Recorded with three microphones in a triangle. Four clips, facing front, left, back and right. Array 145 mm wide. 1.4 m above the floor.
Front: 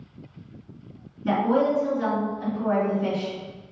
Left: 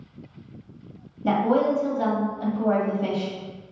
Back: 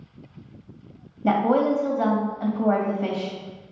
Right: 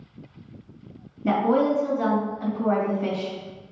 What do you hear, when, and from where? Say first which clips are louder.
1.2 s a woman speaking: even, back 2 dB; 165° left, 1.6 m